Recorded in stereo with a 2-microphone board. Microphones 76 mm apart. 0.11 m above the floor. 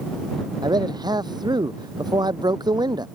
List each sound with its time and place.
0.6 s a man speaking: 65° right (ahead or behind)